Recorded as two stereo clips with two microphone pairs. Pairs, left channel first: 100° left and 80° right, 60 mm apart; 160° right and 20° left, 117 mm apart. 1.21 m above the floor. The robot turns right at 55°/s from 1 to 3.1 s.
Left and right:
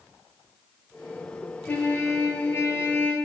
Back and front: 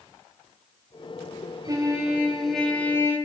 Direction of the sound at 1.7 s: 60° left.